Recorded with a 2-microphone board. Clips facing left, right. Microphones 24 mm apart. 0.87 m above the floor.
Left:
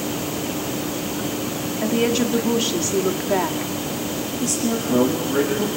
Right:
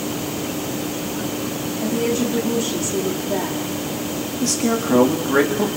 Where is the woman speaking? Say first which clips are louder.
Left 1 dB; 45° left (ahead or behind), 1.7 m.